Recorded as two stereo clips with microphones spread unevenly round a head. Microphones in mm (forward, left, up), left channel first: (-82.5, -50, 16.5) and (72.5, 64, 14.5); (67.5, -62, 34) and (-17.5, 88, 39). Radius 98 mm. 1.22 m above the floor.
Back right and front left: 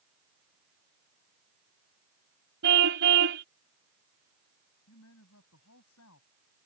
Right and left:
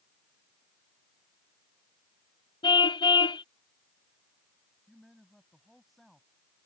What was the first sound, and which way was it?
A car horn, 5° left.